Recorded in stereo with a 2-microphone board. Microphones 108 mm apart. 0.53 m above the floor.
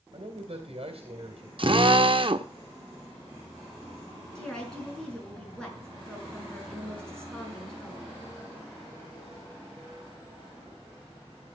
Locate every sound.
0.1 s a man speaking: 60° right (ahead or behind), 2.5 m
1.6 s a drill: 50° right (ahead or behind), 0.7 m
4.3 s a woman speaking: 5° left (ahead or behind), 5.5 m